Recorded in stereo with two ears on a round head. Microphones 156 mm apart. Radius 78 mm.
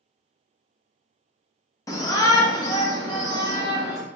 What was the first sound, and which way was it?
A shout, 20° left (ahead or behind).